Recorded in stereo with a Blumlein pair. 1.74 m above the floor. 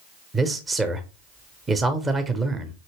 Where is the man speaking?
10° right, 0.8 m.